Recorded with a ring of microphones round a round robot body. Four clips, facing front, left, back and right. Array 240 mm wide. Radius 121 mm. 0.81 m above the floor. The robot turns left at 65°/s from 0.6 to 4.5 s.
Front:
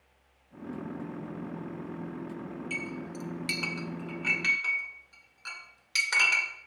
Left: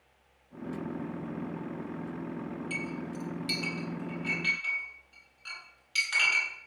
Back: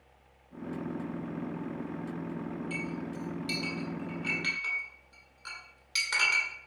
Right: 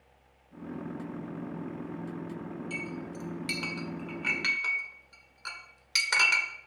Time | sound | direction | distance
2.7 | a clink | 30° left | 2 m